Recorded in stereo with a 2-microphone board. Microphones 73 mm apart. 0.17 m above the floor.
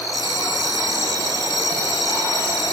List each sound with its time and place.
0.1 s a bell: 60° right (ahead or behind), 2 m